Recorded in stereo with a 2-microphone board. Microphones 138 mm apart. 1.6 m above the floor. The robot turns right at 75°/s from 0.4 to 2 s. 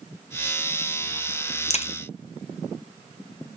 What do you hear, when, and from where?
1.7 s a crack: 50° left (ahead or behind), 0.5 m; by 1.9 s 45° left (ahead or behind), 0.5 m